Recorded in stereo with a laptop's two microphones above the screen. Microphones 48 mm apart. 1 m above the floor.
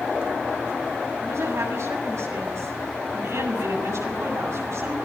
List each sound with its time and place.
1.2 s a woman speaking: 75° right (ahead or behind), 7 m